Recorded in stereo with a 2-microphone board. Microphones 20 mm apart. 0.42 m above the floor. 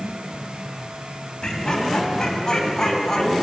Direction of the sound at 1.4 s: 35° left (ahead or behind).